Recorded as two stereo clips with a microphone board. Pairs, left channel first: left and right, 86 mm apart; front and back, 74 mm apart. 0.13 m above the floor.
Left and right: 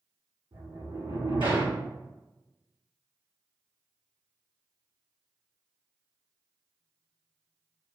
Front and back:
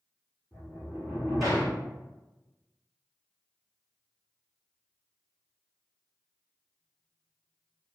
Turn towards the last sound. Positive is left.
turn(degrees=-90)